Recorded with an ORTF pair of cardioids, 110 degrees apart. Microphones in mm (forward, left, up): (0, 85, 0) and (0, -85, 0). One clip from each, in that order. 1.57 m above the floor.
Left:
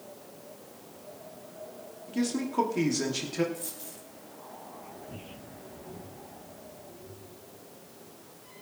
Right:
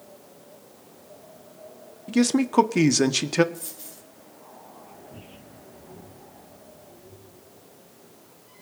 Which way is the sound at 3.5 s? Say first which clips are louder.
Even; 25° right.